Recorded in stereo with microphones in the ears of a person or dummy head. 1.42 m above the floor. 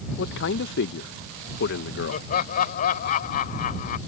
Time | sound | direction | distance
0.2 | a man speaking | 60° left (ahead or behind) | ?
2.1 | laughter | 50° left (ahead or behind) | ?